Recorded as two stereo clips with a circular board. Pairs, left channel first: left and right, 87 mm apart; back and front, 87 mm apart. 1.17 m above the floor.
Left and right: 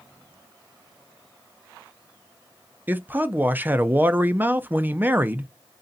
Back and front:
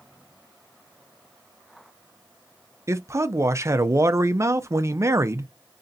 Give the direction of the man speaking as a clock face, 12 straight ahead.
1 o'clock.